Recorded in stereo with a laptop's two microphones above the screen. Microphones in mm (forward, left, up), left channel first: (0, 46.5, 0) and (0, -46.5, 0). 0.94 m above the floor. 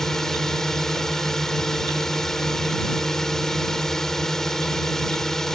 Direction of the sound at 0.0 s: 5° left (ahead or behind).